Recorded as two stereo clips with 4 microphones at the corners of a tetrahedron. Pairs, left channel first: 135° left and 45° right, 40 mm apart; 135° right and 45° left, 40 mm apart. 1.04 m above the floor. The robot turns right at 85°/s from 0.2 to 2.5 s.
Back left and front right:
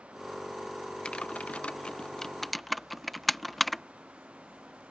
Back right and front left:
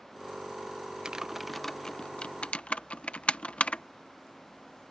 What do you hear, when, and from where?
1.1 s typing on a keyboard: 100° left; by 3.8 s 135° right